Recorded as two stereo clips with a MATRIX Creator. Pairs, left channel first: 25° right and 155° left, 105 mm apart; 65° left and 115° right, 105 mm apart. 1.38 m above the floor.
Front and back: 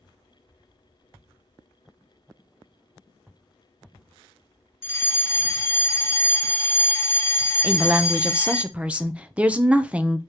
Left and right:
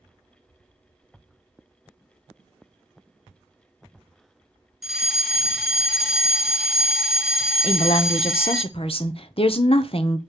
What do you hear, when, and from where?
4.8 s a fire alarm: 30° right, 1.0 m
7.6 s a woman speaking: 80° left, 0.8 m